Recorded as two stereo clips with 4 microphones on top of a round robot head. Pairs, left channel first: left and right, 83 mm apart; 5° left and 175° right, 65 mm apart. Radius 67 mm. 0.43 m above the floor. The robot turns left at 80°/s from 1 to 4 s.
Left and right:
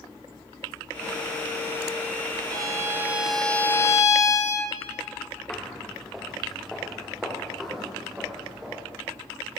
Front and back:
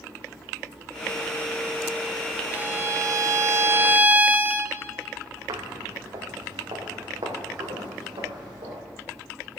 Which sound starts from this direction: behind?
Footsteps, at 5.5 s.